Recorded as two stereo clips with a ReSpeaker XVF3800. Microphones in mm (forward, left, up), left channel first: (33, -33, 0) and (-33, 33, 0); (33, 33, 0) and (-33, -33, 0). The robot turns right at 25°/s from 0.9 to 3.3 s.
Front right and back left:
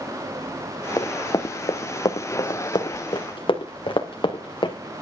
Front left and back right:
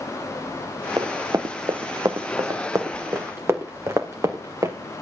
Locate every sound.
1.0 s running footsteps: 95° right, 1.5 m; by 4.8 s 80° right, 2.5 m